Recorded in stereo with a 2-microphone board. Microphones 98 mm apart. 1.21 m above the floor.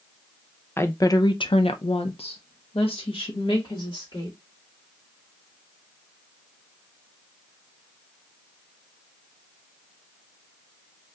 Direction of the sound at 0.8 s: 25° left (ahead or behind).